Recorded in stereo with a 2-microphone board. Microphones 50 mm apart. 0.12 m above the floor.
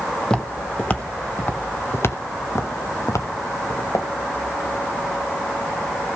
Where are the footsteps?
15° left (ahead or behind), 1.7 m; by 4.1 s 85° left, 2.0 m.